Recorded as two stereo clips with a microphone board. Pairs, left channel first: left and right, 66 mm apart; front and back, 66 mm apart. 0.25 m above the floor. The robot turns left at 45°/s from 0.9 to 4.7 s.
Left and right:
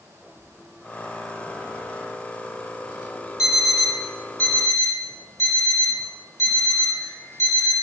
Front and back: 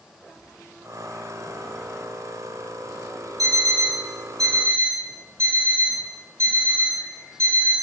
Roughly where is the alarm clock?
Behind.